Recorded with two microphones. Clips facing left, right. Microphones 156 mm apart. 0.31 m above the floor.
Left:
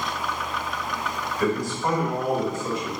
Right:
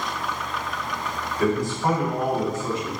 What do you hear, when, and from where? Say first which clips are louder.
1.4 s a man speaking: right 2 dB; 20° right (ahead or behind), 1.4 m